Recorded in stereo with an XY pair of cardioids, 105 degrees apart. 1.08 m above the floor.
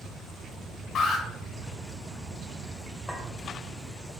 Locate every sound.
0.9 s an alarm: 60° left, 2 m
3.1 s a clink: 5° left, 2.5 m